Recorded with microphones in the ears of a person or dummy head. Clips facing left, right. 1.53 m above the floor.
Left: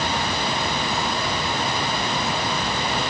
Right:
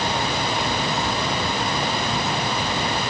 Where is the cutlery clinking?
I don't hear cutlery clinking.